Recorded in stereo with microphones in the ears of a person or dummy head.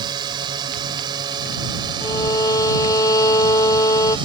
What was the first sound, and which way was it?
A drone, 25° right (ahead or behind).